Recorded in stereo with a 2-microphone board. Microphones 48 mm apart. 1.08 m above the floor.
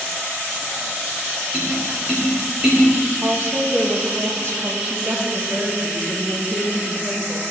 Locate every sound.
1.5 s tapping: 15° right (ahead or behind), 2.5 m
3.2 s a woman speaking: 55° right (ahead or behind), 1.2 m
4.9 s a woman speaking: 45° right (ahead or behind), 1.5 m